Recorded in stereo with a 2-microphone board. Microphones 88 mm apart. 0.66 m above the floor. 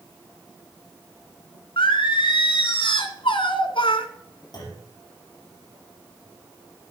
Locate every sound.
1.8 s singing: 75° left (ahead or behind), 1.5 m
4.5 s a clunk: 55° left (ahead or behind), 7 m